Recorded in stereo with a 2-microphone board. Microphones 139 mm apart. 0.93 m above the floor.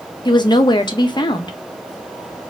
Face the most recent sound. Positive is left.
turn(degrees=35)  # may be behind; listen again after turning